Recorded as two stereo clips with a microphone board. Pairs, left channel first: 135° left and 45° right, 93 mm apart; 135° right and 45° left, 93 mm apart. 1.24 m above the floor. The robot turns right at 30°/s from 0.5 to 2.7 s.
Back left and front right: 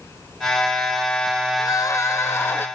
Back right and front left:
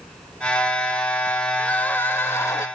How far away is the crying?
About 0.5 m.